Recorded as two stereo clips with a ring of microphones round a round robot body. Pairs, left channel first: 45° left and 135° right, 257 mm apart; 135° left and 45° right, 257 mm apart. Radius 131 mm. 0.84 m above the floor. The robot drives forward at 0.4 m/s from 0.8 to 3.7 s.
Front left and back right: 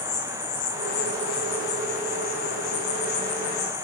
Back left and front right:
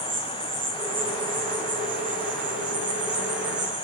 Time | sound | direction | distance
0.0 | an insect | 15° left | 6.5 m